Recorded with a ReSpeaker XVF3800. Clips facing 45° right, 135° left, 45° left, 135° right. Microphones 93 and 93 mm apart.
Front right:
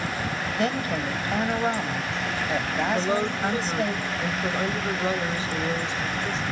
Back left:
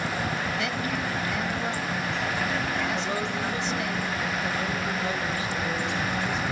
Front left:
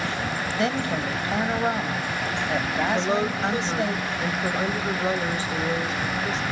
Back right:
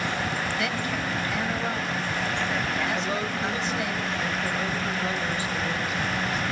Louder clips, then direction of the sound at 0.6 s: Front right 3 dB, front left 4 dB; 5° right.